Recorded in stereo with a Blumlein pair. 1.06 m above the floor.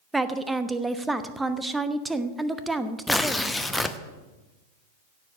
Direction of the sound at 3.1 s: 5° left.